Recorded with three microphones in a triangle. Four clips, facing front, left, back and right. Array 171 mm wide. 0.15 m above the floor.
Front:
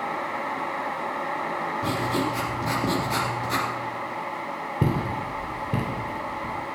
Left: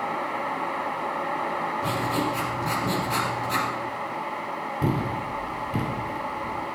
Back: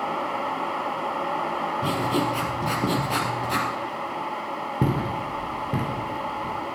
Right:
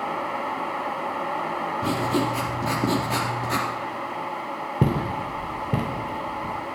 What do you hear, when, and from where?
1.8 s writing: 130° right, 3 m
4.8 s footsteps: 105° right, 3.5 m; by 6.6 s 100° right, 4.5 m